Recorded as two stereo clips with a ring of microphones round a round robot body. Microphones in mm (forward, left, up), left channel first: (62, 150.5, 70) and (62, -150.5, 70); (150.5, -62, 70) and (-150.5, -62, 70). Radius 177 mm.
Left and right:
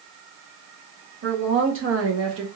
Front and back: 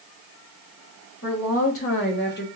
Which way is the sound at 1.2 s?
40° right.